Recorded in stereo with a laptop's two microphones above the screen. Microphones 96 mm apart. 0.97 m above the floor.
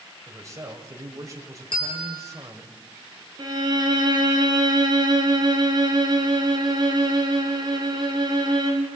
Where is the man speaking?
30° right (ahead or behind), 4 m.